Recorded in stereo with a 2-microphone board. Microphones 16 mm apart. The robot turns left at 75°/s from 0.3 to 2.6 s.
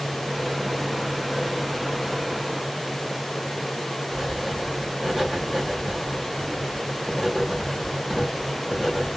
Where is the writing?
40° right (ahead or behind), 2 m.